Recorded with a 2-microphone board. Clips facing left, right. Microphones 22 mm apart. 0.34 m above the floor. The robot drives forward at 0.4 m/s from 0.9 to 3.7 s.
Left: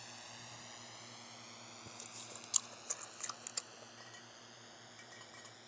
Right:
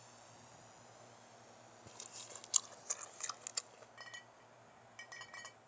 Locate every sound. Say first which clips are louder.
0.0 s a drone: left 8 dB; 55° left (ahead or behind); by 5.7 s 75° left (ahead or behind)
1.9 s chewing: right 1 dB; 5° right (ahead or behind)
4.0 s a clink: right 1 dB; 25° right (ahead or behind)